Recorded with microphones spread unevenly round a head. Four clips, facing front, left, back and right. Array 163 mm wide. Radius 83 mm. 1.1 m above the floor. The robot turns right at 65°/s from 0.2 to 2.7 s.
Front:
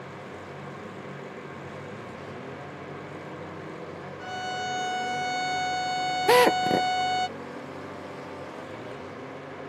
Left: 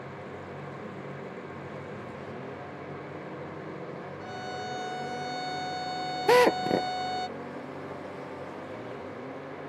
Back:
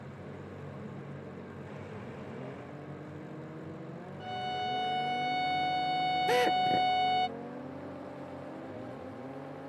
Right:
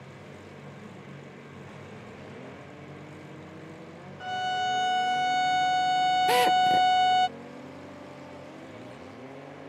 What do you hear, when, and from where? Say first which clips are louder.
4.2 s a violin: right 10 dB, front 2 dB; 90° right
6.3 s a drill: left 4 dB, front 9 dB; 35° left